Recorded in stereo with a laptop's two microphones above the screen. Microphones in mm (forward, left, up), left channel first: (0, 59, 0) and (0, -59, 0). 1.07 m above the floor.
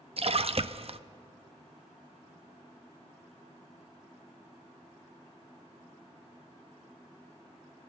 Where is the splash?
55° right (ahead or behind), 0.7 m.